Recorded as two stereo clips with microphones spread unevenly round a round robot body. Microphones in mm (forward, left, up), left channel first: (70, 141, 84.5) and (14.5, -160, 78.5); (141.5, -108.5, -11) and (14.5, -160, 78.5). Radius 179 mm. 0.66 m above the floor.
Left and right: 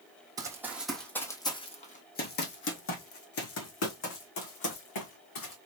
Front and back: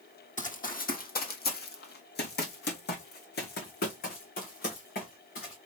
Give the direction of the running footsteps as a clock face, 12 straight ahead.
1 o'clock.